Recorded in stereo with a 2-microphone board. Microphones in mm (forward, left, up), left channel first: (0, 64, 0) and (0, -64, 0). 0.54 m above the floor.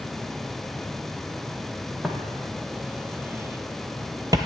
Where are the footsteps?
5° right (ahead or behind), 1.1 m; by 4.4 s 30° right (ahead or behind), 0.6 m.